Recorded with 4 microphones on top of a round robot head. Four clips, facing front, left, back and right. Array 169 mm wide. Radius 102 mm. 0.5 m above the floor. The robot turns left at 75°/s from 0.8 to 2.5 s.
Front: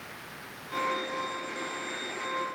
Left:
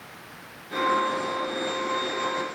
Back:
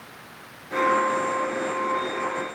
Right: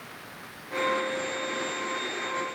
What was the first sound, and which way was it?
Only background noise.